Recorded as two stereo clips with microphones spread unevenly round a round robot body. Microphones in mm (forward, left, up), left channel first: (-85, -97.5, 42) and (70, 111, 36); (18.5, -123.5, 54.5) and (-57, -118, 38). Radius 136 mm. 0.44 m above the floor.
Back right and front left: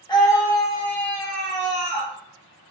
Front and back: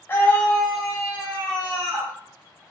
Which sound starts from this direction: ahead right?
A scream, at 0.1 s.